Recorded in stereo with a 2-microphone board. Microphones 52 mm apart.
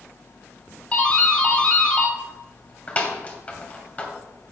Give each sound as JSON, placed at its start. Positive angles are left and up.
{"t": 0.9, "sound": "a doorbell", "side_deg": 30, "distance_m": 1.8}